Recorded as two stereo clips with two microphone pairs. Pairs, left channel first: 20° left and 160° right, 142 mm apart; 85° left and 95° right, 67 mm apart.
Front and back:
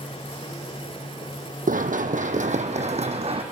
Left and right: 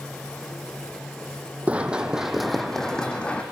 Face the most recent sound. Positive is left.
turn(degrees=155)